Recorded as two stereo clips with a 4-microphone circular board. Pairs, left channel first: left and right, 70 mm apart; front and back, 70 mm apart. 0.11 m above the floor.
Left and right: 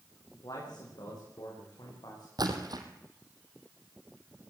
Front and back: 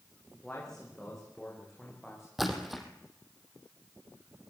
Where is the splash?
95° right, 3 m.